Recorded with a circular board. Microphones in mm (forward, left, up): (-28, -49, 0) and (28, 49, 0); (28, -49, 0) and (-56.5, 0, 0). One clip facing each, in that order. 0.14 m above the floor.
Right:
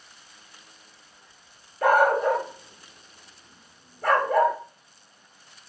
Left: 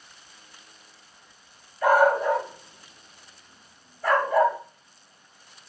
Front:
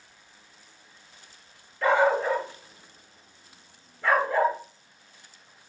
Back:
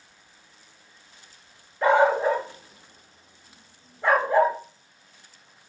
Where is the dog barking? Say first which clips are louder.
Even, back 3 dB; 140° right, 0.9 m.